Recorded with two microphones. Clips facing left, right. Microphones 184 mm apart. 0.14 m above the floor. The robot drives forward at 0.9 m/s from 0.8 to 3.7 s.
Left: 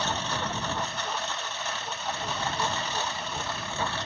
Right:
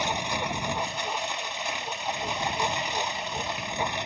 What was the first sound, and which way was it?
A lawn mower, 15° right (ahead or behind).